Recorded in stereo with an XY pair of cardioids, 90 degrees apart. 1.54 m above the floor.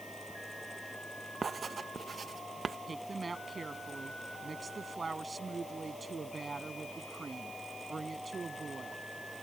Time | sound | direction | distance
0.0 | a fan | straight ahead | ?
1.4 | writing | 45° right | ?
2.9 | a woman speaking | 35° right | ?